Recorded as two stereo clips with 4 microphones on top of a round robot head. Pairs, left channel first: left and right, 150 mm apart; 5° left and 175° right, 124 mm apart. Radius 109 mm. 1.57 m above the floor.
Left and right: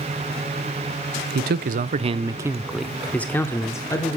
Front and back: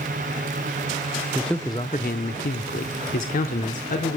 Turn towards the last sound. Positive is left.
turn(degrees=25)